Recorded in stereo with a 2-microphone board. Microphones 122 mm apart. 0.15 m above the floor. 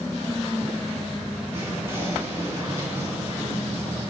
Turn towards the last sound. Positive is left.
turn(degrees=-20)  # may be behind; listen again after turning